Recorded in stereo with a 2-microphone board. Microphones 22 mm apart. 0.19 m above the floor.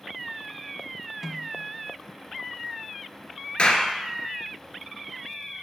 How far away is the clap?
About 2 m.